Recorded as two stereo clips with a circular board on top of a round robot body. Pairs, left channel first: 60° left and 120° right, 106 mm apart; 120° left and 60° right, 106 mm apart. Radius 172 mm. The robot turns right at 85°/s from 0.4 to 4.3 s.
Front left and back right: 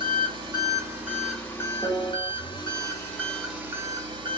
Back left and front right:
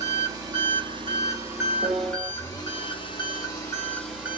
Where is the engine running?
100° right, 1.5 m; by 4.4 s 130° right, 1.5 m.